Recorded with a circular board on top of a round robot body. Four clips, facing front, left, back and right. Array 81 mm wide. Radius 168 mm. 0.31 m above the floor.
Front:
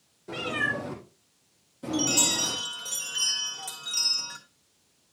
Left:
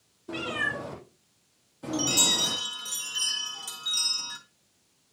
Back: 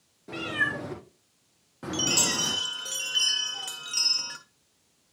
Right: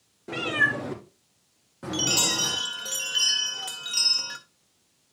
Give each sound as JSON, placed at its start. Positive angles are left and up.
{"t": 0.3, "sound": "a cat meowing", "azimuth_deg": -100, "distance_m": 3.0}
{"t": 1.9, "sound": "a chime", "azimuth_deg": -120, "distance_m": 1.7}